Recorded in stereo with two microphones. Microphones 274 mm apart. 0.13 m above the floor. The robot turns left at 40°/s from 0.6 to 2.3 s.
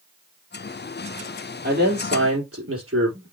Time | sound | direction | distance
1.6 | a man speaking | 30° right (ahead or behind) | 4 m